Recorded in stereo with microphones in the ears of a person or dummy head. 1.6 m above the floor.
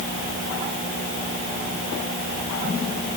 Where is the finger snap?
No finger snap in this recording.